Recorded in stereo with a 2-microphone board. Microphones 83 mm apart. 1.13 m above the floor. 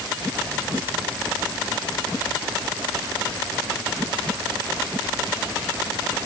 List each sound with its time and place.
Only background noise.